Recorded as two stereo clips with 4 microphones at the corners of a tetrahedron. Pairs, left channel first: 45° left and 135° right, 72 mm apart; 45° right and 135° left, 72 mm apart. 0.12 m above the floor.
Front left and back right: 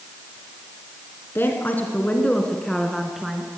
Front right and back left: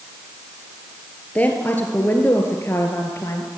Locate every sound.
1.4 s a woman speaking: 10° left, 1.9 m; by 3.5 s 55° right, 2 m